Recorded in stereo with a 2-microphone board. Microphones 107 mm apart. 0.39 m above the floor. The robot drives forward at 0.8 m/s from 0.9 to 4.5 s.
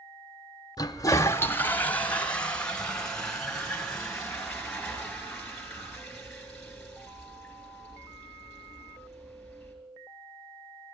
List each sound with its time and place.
0.8 s a toilet flushing: 35° left (ahead or behind), 0.5 m; by 9.7 s 5° left (ahead or behind), 3 m